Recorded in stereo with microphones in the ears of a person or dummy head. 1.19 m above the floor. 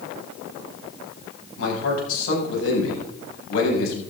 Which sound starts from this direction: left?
A man speaking, at 1.6 s.